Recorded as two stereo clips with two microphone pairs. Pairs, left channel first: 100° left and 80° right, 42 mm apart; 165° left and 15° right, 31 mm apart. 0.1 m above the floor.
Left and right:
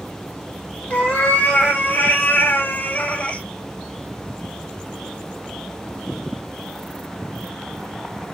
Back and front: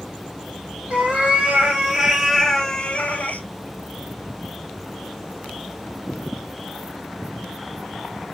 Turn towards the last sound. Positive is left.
turn(degrees=160)